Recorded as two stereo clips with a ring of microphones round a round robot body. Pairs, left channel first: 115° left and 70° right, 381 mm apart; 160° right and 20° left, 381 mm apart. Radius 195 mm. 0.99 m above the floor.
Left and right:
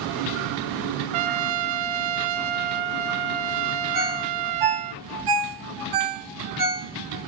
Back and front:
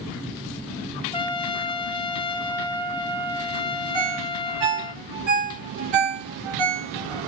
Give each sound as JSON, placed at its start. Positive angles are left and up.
{"t": 1.1, "sound": "a trumpet", "azimuth_deg": -80, "distance_m": 0.8}
{"t": 3.9, "sound": "a ringtone", "azimuth_deg": -30, "distance_m": 3.5}